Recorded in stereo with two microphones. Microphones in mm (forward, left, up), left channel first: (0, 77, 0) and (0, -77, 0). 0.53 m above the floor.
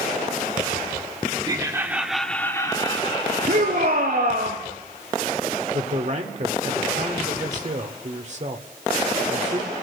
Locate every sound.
1.4 s laughter: 25° right (ahead or behind), 1.7 m; by 4.5 s 65° left (ahead or behind), 3 m
3.5 s a shout: 85° right, 7 m
5.7 s a man speaking: 50° right (ahead or behind), 1.5 m